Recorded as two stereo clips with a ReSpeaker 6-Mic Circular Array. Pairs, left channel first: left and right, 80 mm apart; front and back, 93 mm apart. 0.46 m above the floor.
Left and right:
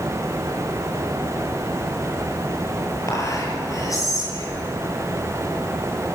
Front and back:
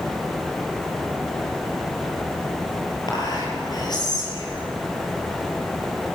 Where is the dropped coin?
I don't hear a dropped coin.